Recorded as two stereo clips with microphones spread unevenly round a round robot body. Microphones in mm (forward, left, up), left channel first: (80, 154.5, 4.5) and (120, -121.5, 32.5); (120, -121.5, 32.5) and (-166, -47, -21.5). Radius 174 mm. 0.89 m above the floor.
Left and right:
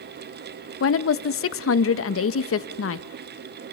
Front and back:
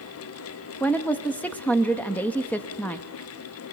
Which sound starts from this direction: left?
A woman speaking, at 0.8 s.